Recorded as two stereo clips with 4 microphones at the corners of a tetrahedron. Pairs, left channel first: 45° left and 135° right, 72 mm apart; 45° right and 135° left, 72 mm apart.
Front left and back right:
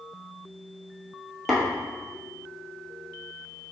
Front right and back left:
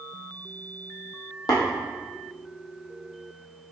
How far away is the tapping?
About 1.6 m.